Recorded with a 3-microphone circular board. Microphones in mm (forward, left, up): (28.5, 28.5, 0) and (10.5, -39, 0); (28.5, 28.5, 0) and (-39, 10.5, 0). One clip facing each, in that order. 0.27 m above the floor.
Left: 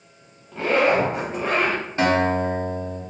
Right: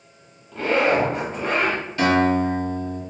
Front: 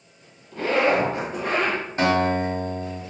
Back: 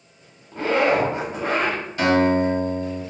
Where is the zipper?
155° left, 1.0 m.